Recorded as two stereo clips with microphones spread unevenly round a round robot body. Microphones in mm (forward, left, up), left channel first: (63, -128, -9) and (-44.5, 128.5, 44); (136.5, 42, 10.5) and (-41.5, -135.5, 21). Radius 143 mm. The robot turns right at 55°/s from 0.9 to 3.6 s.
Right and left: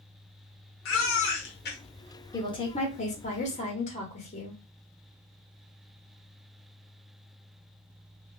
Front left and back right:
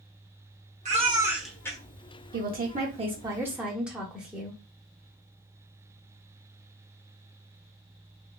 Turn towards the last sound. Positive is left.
turn(degrees=-50)